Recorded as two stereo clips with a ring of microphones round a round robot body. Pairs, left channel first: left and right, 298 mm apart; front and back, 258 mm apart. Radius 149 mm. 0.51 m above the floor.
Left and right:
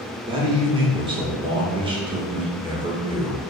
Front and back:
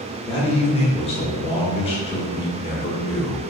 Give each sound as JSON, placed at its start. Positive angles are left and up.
{"t": 0.3, "sound": "a man speaking", "azimuth_deg": -35, "distance_m": 0.7}